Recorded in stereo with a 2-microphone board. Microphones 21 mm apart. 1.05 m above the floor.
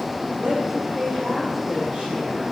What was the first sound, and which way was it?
A woman speaking, 65° right (ahead or behind).